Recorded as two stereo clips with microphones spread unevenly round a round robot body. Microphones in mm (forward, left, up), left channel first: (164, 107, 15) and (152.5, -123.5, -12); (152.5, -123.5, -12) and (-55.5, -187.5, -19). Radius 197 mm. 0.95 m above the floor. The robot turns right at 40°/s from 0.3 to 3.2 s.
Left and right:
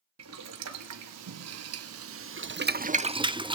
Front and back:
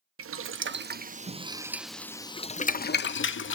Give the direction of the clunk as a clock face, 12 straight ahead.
No clunk in this recording.